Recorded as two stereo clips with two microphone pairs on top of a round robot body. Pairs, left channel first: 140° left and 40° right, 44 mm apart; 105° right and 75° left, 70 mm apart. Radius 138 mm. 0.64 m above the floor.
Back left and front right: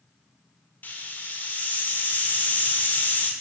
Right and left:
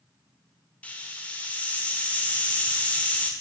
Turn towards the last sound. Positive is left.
turn(degrees=-175)